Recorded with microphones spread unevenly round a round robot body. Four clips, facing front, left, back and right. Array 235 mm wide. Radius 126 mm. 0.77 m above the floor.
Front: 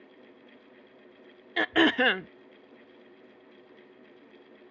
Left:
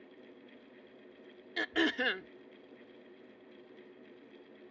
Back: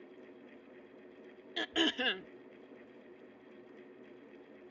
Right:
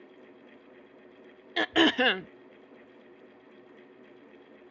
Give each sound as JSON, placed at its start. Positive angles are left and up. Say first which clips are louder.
{"t": 1.6, "sound": "throat clearing", "louder": "right 8 dB, front 11 dB", "azimuth_deg": -45}